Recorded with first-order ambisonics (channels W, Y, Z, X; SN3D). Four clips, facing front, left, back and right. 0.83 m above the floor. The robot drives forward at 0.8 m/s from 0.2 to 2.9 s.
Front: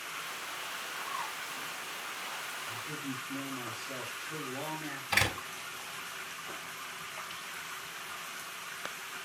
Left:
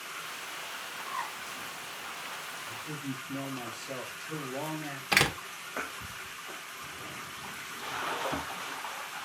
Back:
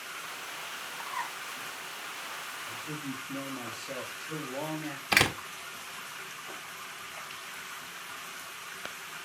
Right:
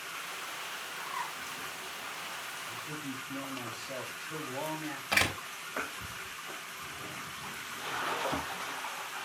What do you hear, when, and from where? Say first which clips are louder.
1.0 s a bird: left 2 dB, back 3 dB; 160° left, 5 m
2.7 s a man speaking: left 1 dB, back 1 dB; 150° left, 4.5 m
5.1 s a door slam: left 3 dB, back 4 dB; 145° left, 1.5 m